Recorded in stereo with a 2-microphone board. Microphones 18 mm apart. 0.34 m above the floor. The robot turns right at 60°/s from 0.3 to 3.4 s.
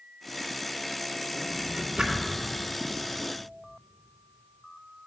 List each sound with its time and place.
1.3 s a drawer: 40° right (ahead or behind), 2 m; by 2.4 s 70° right (ahead or behind), 2 m